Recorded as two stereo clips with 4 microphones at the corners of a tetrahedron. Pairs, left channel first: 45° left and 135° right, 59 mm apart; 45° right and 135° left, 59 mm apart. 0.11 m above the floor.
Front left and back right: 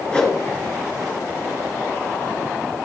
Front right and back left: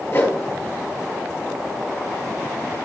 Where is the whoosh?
20° right, 2 m.